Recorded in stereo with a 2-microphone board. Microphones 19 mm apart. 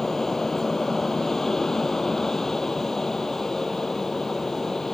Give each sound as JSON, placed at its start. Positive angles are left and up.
{"t": 0.0, "sound": "an aircraft", "side_deg": 15}